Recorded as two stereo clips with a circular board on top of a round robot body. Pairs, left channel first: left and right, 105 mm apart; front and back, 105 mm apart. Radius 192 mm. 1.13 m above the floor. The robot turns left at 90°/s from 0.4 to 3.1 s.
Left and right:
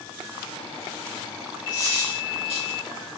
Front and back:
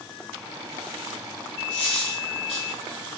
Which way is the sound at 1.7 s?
20° right.